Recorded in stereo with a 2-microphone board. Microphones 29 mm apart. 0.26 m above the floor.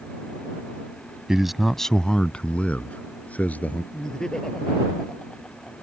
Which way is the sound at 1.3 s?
20° right (ahead or behind).